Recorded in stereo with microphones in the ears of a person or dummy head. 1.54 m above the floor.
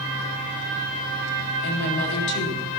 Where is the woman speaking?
60° left (ahead or behind), 3 m.